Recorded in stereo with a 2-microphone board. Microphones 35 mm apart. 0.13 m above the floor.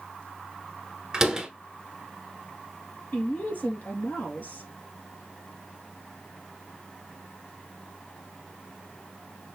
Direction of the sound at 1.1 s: 20° right (ahead or behind).